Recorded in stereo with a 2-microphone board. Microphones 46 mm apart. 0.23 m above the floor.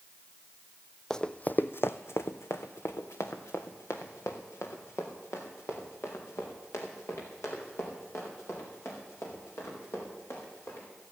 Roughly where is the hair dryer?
I don't hear a hair dryer.